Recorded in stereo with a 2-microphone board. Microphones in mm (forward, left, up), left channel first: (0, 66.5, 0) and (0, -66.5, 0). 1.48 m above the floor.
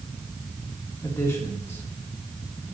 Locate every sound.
1.0 s a man speaking: 20° left (ahead or behind), 2.5 m